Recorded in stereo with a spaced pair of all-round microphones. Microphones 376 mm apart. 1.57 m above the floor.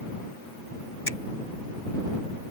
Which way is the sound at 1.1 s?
65° left (ahead or behind).